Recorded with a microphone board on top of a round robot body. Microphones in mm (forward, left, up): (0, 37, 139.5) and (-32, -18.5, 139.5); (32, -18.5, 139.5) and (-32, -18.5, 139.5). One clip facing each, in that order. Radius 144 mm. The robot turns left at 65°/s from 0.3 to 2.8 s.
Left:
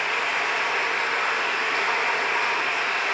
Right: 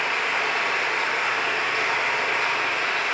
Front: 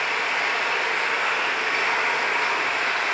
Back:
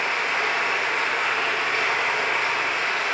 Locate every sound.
0.0 s running water: 155° left, 1.3 m; by 3.1 s 10° right, 1.3 m